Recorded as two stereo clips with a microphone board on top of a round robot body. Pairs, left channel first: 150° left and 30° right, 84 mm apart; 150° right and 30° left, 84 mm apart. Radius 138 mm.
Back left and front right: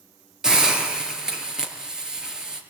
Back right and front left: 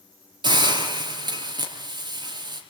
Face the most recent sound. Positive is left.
turn(degrees=55)